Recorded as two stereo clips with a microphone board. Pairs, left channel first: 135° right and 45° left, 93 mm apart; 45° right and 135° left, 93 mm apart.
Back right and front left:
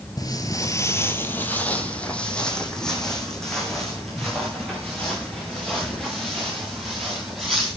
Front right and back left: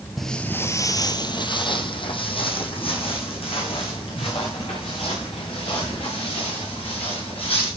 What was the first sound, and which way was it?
Footsteps, 135° right.